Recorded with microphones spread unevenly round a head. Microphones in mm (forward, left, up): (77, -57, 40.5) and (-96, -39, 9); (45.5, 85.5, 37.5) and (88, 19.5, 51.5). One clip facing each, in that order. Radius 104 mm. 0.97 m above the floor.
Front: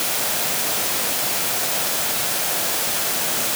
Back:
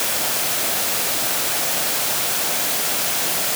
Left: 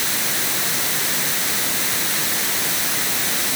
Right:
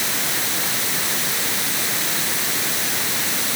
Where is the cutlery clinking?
No cutlery clinking in this recording.